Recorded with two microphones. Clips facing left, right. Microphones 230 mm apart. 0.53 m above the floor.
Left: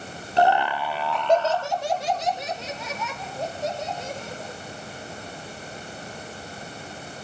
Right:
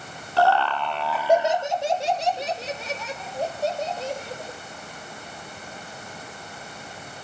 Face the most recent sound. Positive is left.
turn(degrees=-35)  # may be behind; listen again after turning